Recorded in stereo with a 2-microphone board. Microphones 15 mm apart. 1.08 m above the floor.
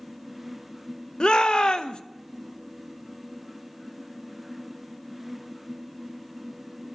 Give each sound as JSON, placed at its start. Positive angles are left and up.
{"t": 1.2, "sound": "a shout", "side_deg": 75, "distance_m": 0.8}